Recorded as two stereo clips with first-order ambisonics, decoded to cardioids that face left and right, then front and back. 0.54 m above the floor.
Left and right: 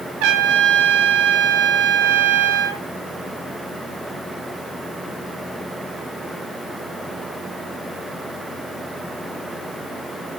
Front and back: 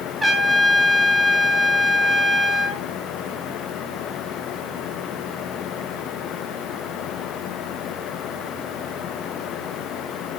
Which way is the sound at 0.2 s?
100° right.